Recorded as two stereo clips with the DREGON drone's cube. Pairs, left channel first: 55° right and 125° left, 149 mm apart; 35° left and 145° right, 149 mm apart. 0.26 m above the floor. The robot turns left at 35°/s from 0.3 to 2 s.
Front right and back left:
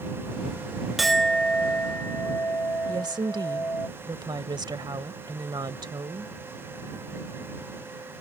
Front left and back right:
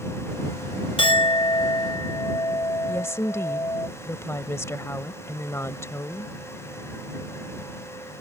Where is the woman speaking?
90° left.